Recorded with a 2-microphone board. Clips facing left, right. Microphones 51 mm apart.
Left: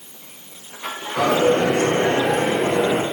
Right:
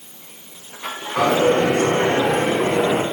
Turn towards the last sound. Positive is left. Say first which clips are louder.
# right 1 dB
turn(degrees=-85)